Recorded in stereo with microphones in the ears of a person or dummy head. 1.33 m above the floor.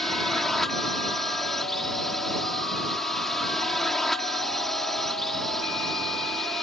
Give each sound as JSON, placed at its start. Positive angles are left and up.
{"t": 0.0, "sound": "a drone", "side_deg": 0}